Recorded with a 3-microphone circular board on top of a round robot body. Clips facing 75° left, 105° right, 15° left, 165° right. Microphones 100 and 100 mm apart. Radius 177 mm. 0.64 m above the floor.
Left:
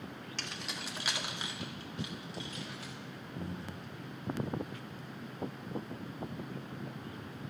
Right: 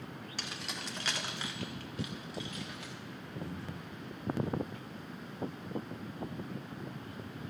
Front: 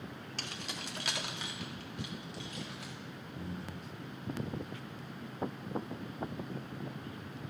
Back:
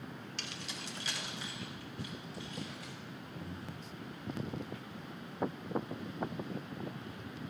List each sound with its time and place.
0.4 s keys jangling: 25° right, 1.1 m; by 2.9 s 20° left, 2.5 m
3.4 s breathing: 35° left, 1.8 m